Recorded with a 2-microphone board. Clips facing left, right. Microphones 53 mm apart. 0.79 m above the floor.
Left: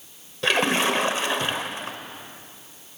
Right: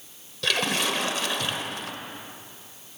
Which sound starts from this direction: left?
A splash, at 0.4 s.